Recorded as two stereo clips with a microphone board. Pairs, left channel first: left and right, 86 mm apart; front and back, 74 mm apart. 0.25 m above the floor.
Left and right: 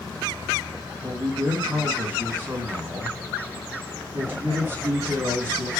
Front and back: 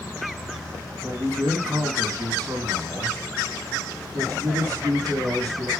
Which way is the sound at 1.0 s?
155° right.